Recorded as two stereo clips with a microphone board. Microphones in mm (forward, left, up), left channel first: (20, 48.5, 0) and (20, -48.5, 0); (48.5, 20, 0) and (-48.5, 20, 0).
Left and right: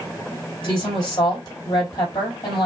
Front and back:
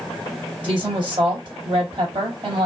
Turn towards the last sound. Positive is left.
turn(degrees=135)